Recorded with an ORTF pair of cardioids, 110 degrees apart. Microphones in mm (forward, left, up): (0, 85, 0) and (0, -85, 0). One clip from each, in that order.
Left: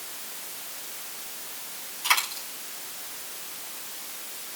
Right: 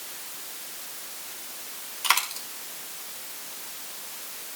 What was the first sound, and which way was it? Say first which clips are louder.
A dropped coin: even; 45° right.